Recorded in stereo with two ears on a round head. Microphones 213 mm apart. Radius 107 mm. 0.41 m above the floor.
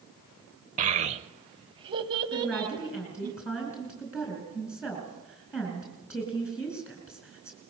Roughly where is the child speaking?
Right.